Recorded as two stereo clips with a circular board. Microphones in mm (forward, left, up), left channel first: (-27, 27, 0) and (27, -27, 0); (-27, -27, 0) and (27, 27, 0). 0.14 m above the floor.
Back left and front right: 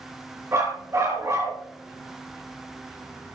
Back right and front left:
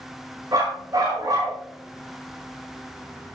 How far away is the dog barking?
About 6.5 m.